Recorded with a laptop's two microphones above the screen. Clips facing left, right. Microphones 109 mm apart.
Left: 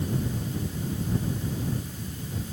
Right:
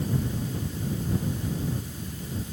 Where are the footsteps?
No footsteps in this recording.